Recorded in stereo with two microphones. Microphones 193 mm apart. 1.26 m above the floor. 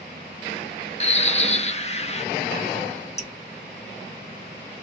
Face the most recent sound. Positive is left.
turn(degrees=35)  # may be behind; listen again after turning